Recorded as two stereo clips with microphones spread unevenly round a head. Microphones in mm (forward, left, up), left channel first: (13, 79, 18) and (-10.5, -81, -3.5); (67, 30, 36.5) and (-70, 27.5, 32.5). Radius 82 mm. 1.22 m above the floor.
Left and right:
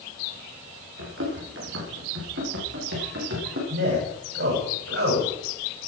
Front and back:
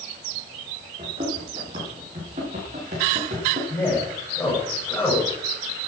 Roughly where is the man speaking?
Right.